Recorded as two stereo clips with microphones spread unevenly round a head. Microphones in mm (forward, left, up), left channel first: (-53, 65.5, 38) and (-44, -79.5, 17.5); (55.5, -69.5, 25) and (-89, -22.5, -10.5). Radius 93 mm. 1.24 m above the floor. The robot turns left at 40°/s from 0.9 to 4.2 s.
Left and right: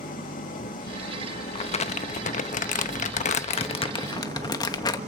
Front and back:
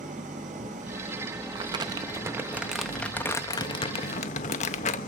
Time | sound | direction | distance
0.0 | an engine running | 105° left | 2 m
1.6 | crumpling | 135° left | 0.6 m